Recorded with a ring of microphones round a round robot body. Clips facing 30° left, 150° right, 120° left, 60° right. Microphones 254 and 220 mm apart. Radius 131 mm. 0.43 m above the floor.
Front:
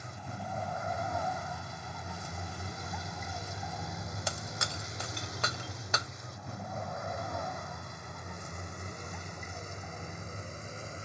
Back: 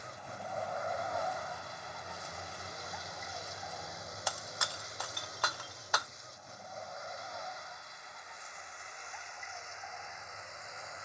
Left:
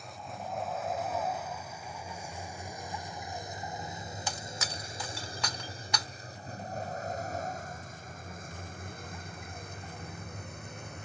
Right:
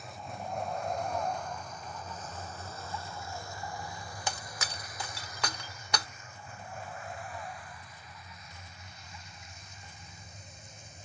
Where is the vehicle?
30° left; by 11.1 s 90° left.